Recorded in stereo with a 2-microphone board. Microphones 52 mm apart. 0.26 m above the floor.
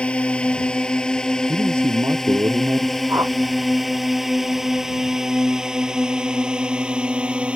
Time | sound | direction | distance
0.0 | a drone | 20° left (ahead or behind) | ?
1.5 | a man speaking | 55° right (ahead or behind) | ?
3.1 | a whoosh | 60° right (ahead or behind) | ?